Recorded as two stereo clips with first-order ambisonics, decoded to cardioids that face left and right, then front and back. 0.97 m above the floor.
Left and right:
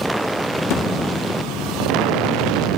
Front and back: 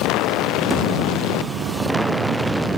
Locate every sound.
0.7 s a thud: 95° left, 0.7 m